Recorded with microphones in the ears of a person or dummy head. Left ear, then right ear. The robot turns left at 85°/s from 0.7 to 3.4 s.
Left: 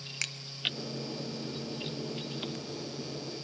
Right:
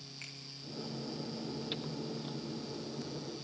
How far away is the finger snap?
About 1.1 m.